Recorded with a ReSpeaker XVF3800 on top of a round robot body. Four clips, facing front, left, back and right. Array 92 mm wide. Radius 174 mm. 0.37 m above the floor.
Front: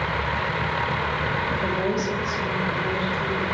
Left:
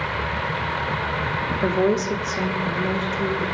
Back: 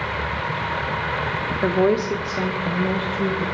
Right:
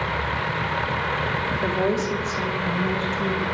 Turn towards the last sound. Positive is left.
turn(degrees=150)